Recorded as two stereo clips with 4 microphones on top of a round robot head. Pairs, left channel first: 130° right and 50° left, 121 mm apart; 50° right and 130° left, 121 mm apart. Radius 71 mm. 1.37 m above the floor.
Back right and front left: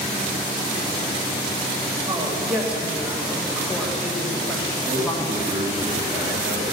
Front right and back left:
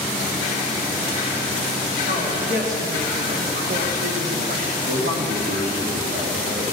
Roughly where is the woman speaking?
Behind left.